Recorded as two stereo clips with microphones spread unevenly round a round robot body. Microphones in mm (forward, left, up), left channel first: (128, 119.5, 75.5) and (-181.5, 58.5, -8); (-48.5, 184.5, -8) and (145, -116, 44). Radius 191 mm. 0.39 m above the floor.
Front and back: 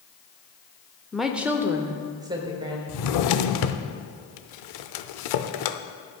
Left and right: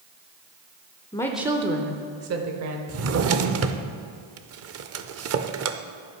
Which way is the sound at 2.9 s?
5° right.